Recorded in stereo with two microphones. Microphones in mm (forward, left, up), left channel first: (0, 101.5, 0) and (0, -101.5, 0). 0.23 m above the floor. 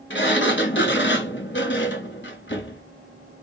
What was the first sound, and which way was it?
A sliding door, 80° left.